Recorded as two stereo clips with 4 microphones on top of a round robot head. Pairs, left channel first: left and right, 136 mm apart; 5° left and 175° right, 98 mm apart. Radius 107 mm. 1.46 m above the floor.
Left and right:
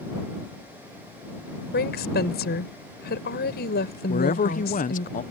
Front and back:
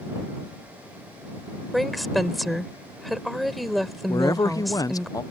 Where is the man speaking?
65° left.